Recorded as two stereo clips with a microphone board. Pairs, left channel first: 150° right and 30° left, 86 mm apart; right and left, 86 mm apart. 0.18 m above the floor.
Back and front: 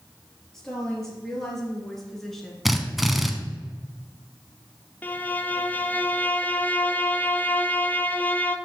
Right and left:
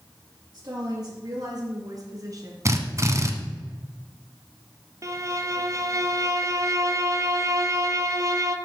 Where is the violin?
140° left, 0.7 m.